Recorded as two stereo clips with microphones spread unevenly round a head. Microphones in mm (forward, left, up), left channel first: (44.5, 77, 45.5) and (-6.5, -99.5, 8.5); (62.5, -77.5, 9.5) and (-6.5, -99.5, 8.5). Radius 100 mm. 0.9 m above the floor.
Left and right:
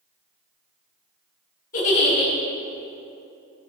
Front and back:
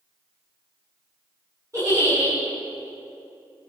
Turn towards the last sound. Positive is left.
turn(degrees=125)